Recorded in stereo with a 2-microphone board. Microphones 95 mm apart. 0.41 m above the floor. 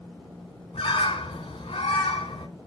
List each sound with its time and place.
0.7 s a bird: 85° left, 1.0 m